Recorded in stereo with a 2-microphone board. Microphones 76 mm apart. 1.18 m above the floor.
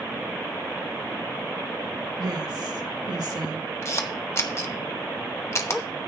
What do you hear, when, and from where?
2.2 s a woman speaking: 60° right (ahead or behind), 1.5 m; by 3.6 s 65° right (ahead or behind), 2 m
3.8 s a camera shutter: 35° left (ahead or behind), 0.9 m